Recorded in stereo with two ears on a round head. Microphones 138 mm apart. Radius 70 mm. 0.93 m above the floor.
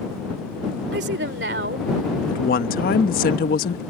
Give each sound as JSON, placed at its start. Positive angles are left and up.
{"t": 0.9, "sound": "a woman speaking", "side_deg": -80}
{"t": 2.3, "sound": "a woman speaking", "side_deg": 60}